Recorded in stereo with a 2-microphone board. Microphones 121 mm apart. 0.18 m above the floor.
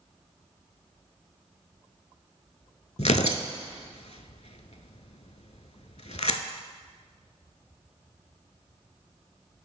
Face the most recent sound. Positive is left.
turn(degrees=70)  # may be behind; listen again after turning